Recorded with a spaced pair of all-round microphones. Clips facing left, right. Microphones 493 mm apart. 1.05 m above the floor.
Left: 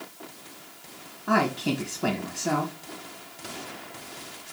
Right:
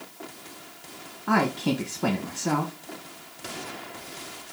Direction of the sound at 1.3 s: 10° right (ahead or behind).